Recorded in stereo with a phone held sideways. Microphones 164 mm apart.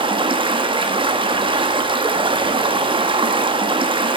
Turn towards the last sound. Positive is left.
turn(degrees=-30)  # may be behind; listen again after turning